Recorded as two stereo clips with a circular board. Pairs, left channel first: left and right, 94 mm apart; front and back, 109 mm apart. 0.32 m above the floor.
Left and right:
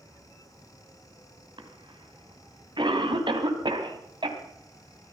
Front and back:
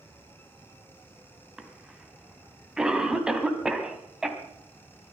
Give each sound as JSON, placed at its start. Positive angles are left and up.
{"t": 1.6, "sound": "a cough", "azimuth_deg": -95, "distance_m": 2.5}